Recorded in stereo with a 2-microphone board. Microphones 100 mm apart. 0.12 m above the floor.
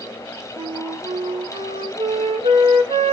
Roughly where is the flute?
Right.